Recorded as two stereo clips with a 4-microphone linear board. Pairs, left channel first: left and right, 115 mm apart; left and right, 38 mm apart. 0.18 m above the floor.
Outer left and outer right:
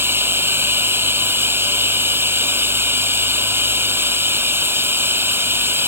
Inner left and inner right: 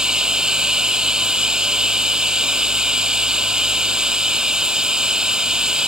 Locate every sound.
0.0 s running water: 20° right (ahead or behind)